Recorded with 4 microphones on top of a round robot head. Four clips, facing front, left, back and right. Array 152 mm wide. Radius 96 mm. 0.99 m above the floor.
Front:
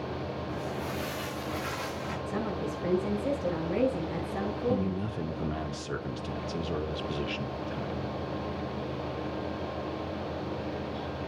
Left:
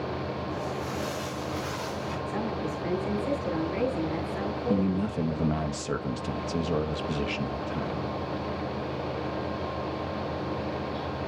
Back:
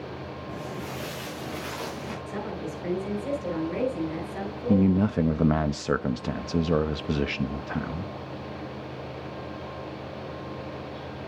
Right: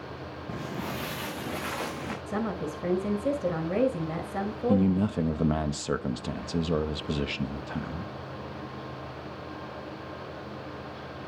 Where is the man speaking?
170° right, 1.2 m.